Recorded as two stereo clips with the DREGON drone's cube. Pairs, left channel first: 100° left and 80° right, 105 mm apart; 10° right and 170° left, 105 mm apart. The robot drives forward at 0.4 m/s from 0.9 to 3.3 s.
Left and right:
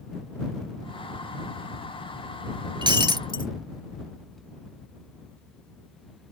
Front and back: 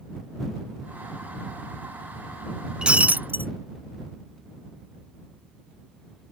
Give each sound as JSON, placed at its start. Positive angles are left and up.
{"t": 2.8, "sound": "breaking glass", "azimuth_deg": -110}